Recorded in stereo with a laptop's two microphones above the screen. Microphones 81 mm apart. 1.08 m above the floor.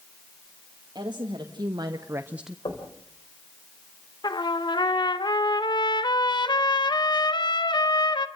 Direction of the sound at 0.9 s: 65° right (ahead or behind).